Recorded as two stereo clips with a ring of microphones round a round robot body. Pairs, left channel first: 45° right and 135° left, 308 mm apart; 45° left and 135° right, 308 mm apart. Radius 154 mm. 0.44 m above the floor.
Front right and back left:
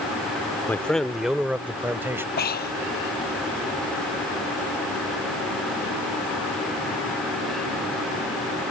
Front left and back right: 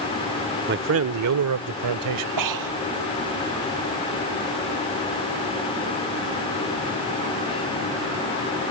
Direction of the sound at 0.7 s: 125° right.